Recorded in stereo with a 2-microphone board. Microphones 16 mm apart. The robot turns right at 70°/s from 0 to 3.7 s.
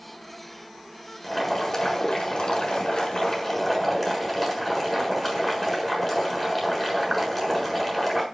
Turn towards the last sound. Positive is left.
turn(degrees=165)